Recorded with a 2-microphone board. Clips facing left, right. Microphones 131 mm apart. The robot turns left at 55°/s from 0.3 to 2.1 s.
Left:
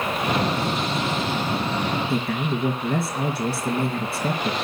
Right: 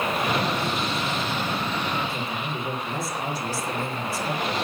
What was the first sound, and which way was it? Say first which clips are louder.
A man speaking: left 6 dB; 60° left (ahead or behind).